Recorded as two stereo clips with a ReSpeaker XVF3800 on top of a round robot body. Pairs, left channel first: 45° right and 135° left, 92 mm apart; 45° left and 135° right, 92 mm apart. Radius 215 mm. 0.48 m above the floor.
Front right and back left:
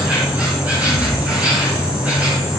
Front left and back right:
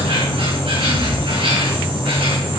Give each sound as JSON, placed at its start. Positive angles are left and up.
{"t": 0.0, "sound": "an insect", "azimuth_deg": -150, "distance_m": 5.5}